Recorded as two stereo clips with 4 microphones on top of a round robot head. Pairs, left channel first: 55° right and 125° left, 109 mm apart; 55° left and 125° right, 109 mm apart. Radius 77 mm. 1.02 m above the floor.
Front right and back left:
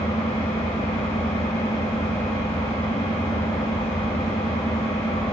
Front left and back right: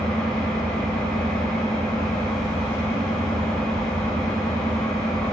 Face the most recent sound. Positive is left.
turn(degrees=-25)